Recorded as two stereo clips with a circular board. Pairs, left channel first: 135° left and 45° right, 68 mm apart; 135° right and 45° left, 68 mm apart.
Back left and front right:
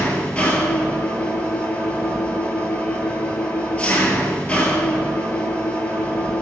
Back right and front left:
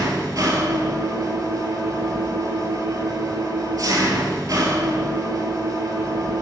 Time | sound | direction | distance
0.0 | an engine running | 65° left | 1.7 m